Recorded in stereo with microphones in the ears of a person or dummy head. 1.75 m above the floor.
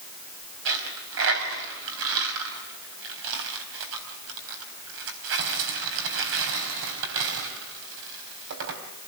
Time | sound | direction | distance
0.7 | a dropped coin | 75° right (ahead or behind) | 4.5 m